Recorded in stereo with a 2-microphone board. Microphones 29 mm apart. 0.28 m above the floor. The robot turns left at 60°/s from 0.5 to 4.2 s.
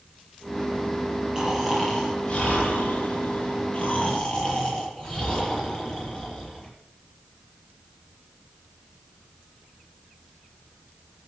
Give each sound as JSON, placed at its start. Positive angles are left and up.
{"t": 1.4, "sound": "snoring", "azimuth_deg": -150, "distance_m": 8.5}